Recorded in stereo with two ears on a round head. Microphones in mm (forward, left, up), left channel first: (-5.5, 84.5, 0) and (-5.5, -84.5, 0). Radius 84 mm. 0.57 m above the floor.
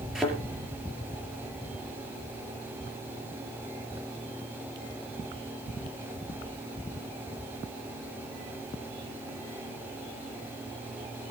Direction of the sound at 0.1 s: 5° right (ahead or behind).